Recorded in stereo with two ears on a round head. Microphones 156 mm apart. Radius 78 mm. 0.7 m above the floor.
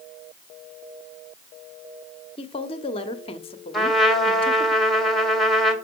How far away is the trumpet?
About 1.8 m.